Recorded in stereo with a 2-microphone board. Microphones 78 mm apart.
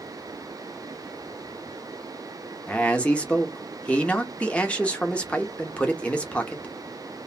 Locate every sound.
2.7 s a man speaking: 15° left (ahead or behind), 0.7 m